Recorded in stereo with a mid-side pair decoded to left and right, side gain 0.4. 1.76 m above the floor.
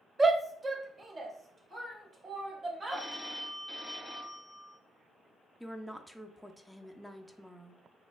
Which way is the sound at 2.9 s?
5° right.